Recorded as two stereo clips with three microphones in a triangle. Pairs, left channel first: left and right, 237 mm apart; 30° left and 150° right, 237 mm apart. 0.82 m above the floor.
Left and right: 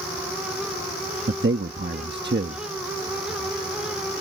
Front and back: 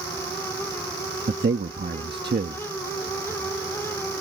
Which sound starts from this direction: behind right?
A man speaking, at 1.3 s.